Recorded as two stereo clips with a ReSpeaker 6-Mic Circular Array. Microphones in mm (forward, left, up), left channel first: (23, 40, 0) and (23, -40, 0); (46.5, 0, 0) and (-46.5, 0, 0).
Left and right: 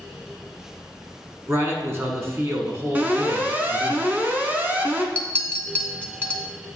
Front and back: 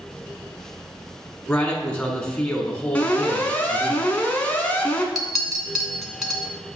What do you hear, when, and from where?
1.5 s a man speaking: 70° right, 1.3 m
3.0 s an alarm: 55° right, 1.0 m
5.2 s a clink: 100° left, 0.8 m